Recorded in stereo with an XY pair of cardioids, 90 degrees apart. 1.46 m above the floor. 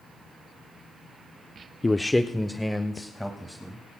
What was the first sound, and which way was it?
A man speaking, 20° left.